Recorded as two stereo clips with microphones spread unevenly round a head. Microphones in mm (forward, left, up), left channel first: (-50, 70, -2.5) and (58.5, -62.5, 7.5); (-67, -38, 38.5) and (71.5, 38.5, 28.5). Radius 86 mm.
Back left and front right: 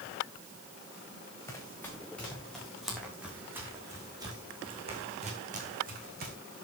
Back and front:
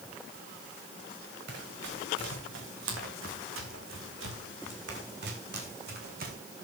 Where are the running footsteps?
50° left, 6.5 m; by 6.4 s 15° right, 5 m.